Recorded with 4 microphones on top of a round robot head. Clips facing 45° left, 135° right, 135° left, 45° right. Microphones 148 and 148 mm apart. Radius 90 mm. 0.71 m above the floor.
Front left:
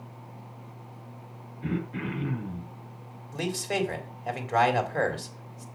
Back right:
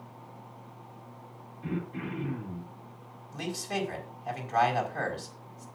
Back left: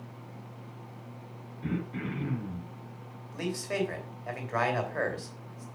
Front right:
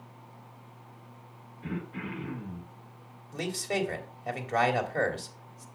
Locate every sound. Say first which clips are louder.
1.6 s throat clearing: front left 3 dB, back left 3 dB; 85° left, 5.5 m
3.3 s a man speaking: front left 4 dB, even; 15° left, 3 m